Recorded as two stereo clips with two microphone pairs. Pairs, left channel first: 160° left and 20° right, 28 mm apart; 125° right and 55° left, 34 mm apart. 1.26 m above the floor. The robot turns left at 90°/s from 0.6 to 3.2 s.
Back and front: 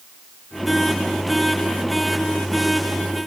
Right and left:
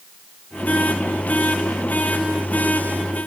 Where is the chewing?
No chewing in this recording.